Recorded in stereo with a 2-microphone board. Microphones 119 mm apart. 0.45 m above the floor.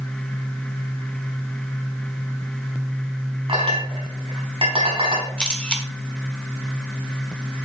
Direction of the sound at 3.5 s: 45° right (ahead or behind).